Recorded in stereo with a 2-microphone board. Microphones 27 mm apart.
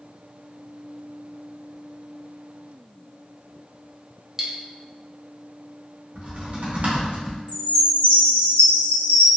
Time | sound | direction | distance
4.4 | cutlery clinking | 15° right (ahead or behind) | 0.5 m
6.2 | typing on a keyboard | 65° right (ahead or behind) | 0.9 m
7.5 | a chime | 80° left | 1.2 m